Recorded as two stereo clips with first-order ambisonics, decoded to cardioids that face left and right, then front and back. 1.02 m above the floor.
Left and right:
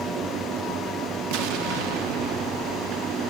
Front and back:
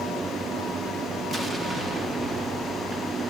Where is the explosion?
100° right, 1.6 m.